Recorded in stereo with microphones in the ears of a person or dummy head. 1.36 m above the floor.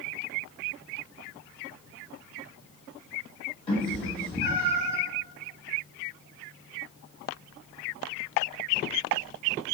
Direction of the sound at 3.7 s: 30° left (ahead or behind).